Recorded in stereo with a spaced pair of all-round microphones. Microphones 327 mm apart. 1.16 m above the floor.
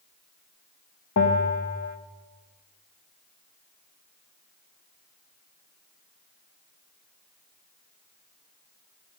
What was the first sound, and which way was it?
A bell, 60° left (ahead or behind).